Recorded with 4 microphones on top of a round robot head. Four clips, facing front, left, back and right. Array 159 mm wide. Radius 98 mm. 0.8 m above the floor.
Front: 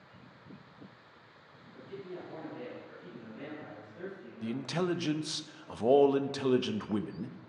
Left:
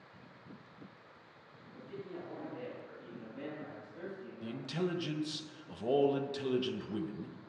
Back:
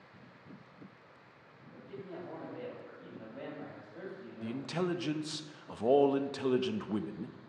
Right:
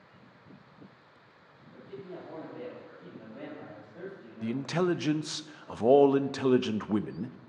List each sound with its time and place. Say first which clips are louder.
1.7 s a man speaking: right 2 dB, front 2 dB; 130° right, 4.5 m
4.4 s a man speaking: right 8 dB, front 2 dB; 85° right, 0.5 m